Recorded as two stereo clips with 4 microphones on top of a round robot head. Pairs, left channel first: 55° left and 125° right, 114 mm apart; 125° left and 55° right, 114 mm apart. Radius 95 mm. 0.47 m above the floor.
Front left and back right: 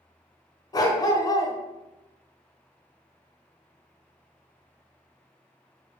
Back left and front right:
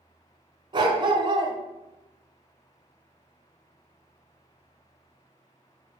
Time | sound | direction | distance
0.7 | a dog barking | 5° right | 1.3 m